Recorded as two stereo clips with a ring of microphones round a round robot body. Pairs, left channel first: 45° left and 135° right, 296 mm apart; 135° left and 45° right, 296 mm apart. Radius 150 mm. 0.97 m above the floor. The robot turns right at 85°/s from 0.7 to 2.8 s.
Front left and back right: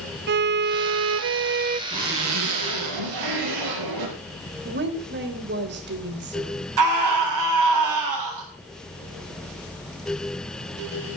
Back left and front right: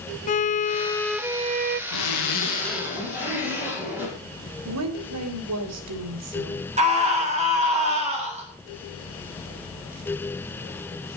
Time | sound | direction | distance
0.3 | a violin | 170° right | 0.5 m
1.9 | a zipper | 155° left | 5.5 m
4.7 | a woman speaking | 80° right | 3.5 m
6.8 | a scream | 115° right | 7 m